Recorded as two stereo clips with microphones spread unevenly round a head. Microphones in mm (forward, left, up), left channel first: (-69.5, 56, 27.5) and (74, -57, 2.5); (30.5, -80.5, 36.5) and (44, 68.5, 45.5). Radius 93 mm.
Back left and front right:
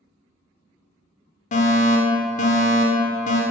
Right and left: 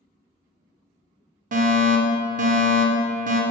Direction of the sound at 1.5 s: 95° left.